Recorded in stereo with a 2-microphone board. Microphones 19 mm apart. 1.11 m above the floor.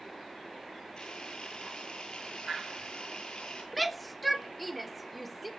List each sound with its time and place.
1.0 s a camera shutter: 50° left (ahead or behind), 9 m
3.7 s a shout: centre (ahead or behind), 1.0 m